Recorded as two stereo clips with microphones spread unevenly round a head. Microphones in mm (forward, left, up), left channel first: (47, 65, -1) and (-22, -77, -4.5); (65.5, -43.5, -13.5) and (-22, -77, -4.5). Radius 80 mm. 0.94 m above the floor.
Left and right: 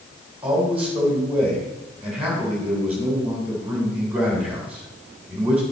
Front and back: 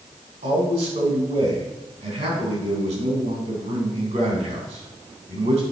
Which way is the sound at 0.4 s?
160° left.